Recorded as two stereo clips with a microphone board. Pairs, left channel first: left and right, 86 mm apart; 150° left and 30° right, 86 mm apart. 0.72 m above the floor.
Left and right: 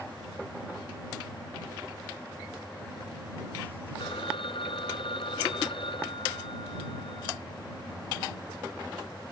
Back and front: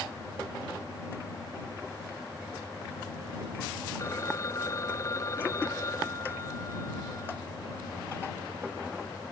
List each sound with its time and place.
4.0 s a phone ringing: 95° left